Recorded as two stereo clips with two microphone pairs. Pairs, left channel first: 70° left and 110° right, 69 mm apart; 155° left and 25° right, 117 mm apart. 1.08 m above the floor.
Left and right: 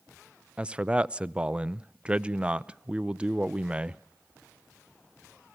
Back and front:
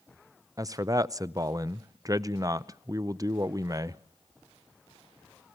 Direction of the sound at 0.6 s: 55° right.